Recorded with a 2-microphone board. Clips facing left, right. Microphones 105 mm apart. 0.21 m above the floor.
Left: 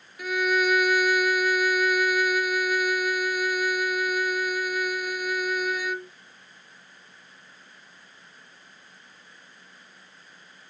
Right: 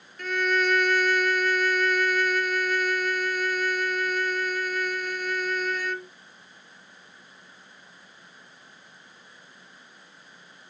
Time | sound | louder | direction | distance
0.2 | a violin | left 1 dB | 10° left (ahead or behind) | ?